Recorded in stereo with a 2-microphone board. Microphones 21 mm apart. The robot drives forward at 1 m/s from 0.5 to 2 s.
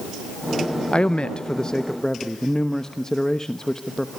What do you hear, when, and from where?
0.9 s a man speaking: 50° left (ahead or behind), 0.5 m; by 4.1 s 20° left (ahead or behind), 1.1 m